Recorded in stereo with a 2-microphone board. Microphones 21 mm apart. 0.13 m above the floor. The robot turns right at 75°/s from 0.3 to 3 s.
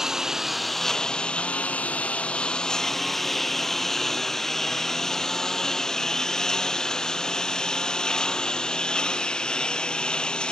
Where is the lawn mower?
20° right (ahead or behind); by 10.5 s 40° left (ahead or behind).